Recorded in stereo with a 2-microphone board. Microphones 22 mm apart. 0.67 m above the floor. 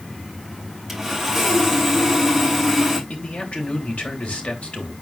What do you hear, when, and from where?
0.9 s sawing: 5° left (ahead or behind), 4.5 m
3.1 s a man speaking: 75° left (ahead or behind), 3 m